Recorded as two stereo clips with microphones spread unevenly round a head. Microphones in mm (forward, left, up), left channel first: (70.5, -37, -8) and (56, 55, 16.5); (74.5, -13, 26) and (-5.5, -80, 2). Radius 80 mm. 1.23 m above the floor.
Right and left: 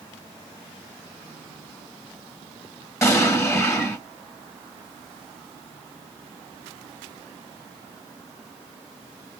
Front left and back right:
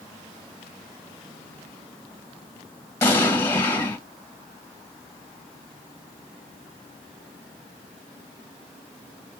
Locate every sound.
3.0 s an explosion: 10° right, 1.6 m